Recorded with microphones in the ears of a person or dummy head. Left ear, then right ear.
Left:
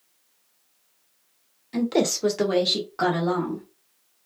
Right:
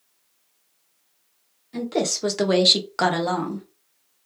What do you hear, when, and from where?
1.7 s a woman speaking: 30° left (ahead or behind), 0.6 m; by 3.6 s 75° right (ahead or behind), 1.1 m